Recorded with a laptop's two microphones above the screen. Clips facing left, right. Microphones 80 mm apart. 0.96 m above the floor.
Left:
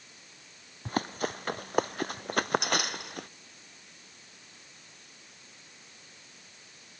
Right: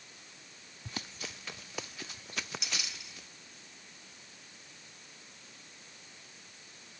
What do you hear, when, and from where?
0.8 s running footsteps: 50° left (ahead or behind); by 3.3 s 60° left (ahead or behind)